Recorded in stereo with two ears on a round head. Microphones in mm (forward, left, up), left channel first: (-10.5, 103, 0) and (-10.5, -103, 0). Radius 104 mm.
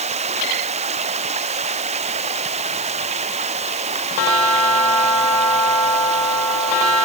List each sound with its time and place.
0.0 s running water: 30° right (ahead or behind)